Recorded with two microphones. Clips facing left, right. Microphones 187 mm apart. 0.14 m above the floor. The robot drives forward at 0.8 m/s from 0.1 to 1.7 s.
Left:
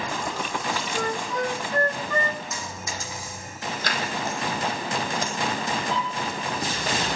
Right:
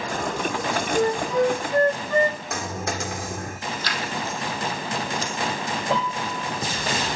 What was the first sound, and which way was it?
A flute, 30° right (ahead or behind).